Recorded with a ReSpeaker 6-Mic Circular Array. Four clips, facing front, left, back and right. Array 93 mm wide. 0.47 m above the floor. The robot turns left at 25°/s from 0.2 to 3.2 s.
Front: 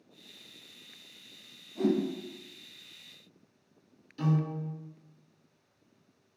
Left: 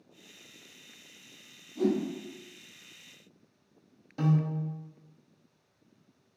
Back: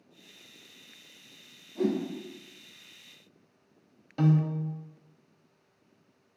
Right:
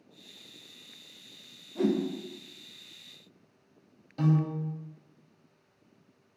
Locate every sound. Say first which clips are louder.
1.8 s a whoosh: right 1 dB, front 1 dB; 95° right, 0.8 m; by 2.0 s 100° right, 0.8 m
4.2 s a piano: right 1 dB, back 4 dB; 170° left, 0.7 m